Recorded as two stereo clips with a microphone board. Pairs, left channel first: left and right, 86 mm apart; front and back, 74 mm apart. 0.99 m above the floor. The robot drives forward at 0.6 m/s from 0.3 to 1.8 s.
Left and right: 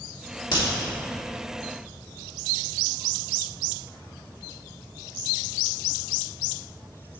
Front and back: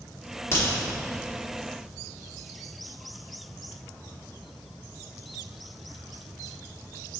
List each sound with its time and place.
0.5 s a crack: 55° left, 1.9 m